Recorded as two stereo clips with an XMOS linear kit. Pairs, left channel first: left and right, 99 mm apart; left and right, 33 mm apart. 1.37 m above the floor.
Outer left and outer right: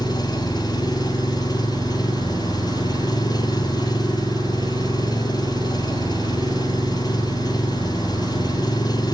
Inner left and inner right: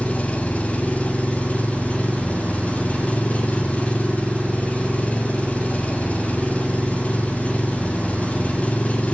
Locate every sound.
0.0 s an engine running: 40° left (ahead or behind), 7 m